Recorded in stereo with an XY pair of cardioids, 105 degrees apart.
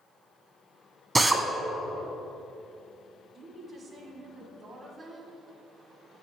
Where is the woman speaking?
50° right, 1.8 m.